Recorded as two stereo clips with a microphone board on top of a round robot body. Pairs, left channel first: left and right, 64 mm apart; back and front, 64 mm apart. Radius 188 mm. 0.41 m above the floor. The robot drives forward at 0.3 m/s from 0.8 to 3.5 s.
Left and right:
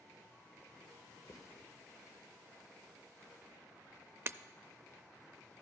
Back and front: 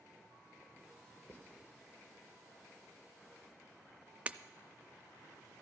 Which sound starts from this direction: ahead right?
Breaking glass, at 4.3 s.